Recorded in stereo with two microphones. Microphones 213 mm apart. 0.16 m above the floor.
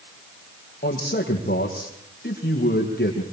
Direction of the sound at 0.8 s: 50° left (ahead or behind).